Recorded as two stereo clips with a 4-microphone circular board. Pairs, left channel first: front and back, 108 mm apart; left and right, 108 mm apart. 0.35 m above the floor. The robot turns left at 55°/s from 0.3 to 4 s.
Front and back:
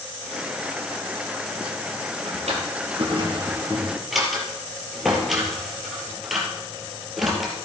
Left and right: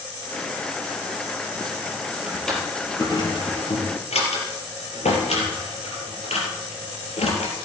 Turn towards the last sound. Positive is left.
turn(degrees=90)